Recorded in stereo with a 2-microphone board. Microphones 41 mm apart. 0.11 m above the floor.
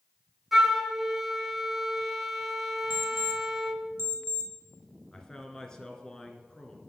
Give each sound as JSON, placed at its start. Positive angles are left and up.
{"t": 0.5, "sound": "a flute", "side_deg": -5, "distance_m": 0.8}
{"t": 2.9, "sound": "an alarm clock", "side_deg": -65, "distance_m": 1.1}
{"t": 5.1, "sound": "a man speaking", "side_deg": 15, "distance_m": 1.3}